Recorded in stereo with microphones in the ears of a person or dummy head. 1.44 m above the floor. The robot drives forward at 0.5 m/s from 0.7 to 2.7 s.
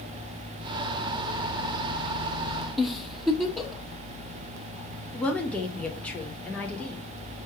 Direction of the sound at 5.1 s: 10° left (ahead or behind).